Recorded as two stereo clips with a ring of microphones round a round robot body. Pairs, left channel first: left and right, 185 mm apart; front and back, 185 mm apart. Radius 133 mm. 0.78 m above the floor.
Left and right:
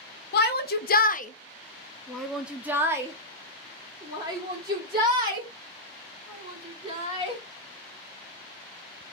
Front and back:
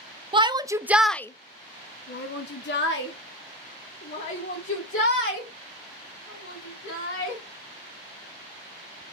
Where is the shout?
120° left, 0.8 m; by 7.4 s 30° right, 3.5 m.